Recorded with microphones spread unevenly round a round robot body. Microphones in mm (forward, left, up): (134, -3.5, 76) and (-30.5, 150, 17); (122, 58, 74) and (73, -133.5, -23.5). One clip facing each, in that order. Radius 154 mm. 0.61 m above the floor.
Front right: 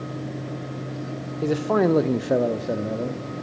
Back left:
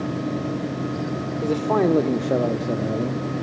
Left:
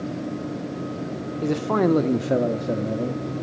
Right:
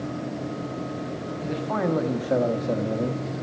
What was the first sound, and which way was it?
A man speaking, 50° left.